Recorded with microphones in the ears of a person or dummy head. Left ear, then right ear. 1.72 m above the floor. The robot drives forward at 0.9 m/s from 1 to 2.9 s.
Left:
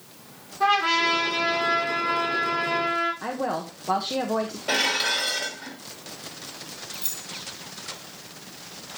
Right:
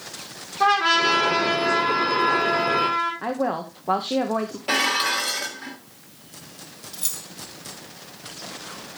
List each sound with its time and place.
0.6 s a trumpet: 85° right, 6 m; by 3.1 s 70° right (ahead or behind), 6 m
3.2 s a woman speaking: 10° right (ahead or behind), 1.2 m
4.7 s dishes clattering: 10° right (ahead or behind), 2.0 m
6.9 s keys jangling: 45° right (ahead or behind), 3.5 m